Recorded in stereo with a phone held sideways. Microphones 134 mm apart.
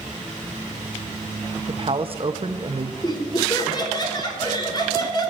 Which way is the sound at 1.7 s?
45° right (ahead or behind).